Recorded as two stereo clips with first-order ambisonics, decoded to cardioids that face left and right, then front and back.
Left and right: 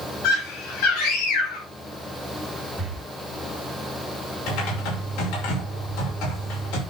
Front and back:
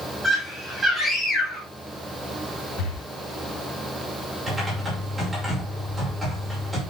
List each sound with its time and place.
0.2 s a scream: 95° left, 7.5 m
2.8 s breathing: 10° right, 2.5 m
4.5 s typing on a keyboard: 95° left, 6 m